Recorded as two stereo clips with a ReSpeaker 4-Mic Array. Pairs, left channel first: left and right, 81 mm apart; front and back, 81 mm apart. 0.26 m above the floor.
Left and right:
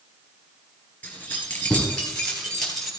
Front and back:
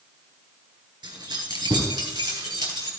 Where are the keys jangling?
155° left, 3.5 m; by 2.9 s 175° left, 4 m.